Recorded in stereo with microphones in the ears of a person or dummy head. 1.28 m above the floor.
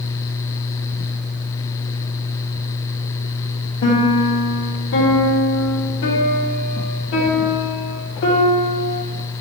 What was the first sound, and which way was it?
A piano, 60° left (ahead or behind).